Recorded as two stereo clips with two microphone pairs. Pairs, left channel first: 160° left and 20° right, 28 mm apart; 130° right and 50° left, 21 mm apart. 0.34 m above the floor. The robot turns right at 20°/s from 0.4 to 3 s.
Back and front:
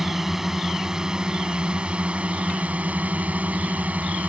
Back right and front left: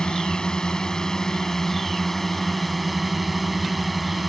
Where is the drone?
90° right; by 4.3 s 40° right.